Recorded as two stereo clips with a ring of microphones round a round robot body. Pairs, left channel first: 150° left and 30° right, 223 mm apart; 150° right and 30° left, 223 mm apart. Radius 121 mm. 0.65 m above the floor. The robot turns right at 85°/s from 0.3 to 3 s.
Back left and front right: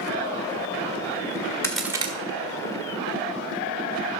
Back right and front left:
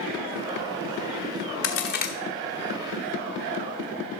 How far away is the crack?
About 1.3 m.